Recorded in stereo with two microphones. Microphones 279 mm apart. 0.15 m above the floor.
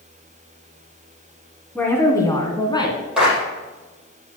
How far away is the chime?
I don't hear a chime.